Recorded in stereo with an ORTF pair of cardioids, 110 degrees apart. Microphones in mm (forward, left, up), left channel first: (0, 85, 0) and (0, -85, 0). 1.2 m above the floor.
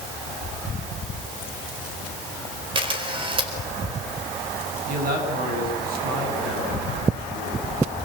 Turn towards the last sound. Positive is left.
turn(degrees=-60)